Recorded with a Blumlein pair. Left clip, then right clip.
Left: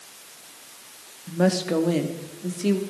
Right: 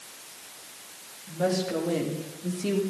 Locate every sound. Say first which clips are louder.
1.3 s a woman speaking: left 4 dB; 60° left, 2.5 m; by 2.8 s 75° left, 2.5 m